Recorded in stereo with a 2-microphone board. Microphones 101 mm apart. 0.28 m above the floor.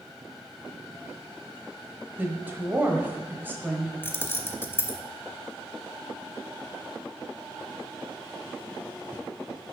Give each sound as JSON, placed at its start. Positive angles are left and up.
{"t": 2.2, "sound": "a woman speaking", "side_deg": -20, "distance_m": 1.2}
{"t": 4.0, "sound": "keys jangling", "side_deg": 25, "distance_m": 0.8}